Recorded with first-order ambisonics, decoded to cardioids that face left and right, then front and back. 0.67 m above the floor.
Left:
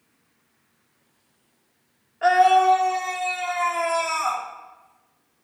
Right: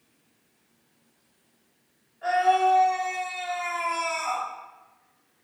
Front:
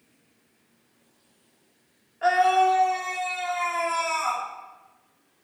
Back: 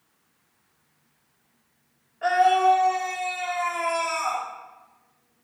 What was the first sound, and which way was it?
A scream, 75° left.